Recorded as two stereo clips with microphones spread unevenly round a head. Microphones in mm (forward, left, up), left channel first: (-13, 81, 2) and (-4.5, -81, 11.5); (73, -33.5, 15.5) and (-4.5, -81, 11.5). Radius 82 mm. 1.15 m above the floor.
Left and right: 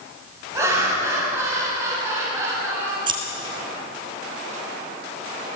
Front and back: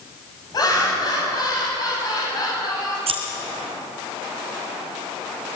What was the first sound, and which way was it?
Laughter, 10° right.